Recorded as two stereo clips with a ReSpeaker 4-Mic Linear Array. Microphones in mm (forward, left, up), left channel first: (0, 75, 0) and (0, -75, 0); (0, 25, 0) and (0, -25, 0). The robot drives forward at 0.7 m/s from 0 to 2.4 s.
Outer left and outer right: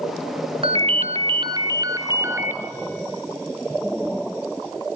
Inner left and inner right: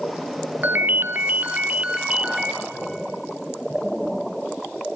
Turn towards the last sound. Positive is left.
turn(degrees=-15)  # may be behind; listen again after turning